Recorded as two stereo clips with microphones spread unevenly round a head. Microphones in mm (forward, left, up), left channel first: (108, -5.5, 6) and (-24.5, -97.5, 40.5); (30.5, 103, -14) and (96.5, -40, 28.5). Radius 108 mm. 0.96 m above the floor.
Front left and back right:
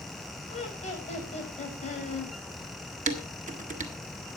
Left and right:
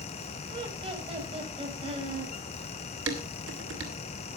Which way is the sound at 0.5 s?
10° right.